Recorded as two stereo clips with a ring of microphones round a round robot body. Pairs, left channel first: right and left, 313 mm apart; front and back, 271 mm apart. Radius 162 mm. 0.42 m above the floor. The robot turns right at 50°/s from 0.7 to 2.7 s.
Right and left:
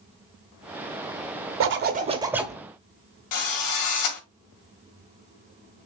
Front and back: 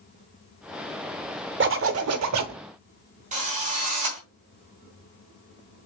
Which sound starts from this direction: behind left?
A zipper, at 1.6 s.